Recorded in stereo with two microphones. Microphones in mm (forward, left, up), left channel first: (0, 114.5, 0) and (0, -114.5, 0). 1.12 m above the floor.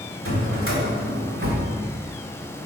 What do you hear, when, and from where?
0.2 s a drawer: 65° right (ahead or behind), 2 m